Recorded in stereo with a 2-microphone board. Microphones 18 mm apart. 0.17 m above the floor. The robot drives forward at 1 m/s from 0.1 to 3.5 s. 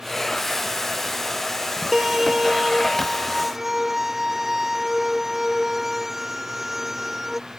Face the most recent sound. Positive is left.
turn(degrees=-10)  # may be behind; listen again after turning